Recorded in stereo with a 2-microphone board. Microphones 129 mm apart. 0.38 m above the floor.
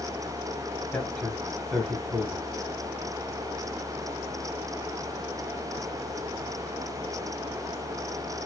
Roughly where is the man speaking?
Centre.